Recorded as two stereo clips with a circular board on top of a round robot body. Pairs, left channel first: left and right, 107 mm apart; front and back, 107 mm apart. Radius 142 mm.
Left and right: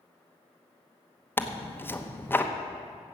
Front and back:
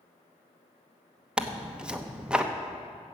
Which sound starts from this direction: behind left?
Tearing paper, at 1.4 s.